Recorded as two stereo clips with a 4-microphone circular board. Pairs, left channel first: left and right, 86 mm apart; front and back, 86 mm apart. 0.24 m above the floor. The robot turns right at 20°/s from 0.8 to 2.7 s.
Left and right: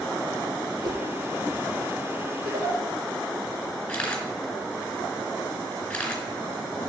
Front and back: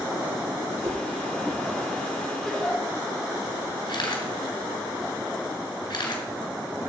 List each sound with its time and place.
0.8 s a whoosh: 125° right, 1.9 m; by 1.0 s 120° right, 1.9 m
2.4 s a giggle: 85° right, 6.5 m; by 2.8 s 80° right, 6.5 m
3.9 s a camera shutter: 15° left, 3.5 m